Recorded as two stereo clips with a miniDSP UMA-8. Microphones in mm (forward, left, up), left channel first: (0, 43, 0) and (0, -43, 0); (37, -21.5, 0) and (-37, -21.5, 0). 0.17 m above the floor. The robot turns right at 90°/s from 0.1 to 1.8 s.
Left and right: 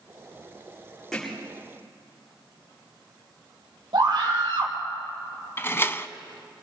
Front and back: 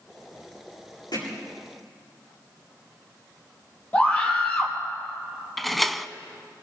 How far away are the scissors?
No scissors in this recording.